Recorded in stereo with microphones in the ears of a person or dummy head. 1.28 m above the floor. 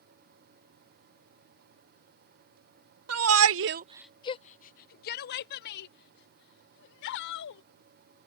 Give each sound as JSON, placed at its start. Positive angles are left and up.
{"t": 3.1, "sound": "a shout", "side_deg": -80}